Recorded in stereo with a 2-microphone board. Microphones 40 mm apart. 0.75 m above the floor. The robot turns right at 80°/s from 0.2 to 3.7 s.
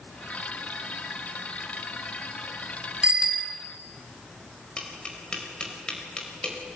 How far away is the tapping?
About 4.5 m.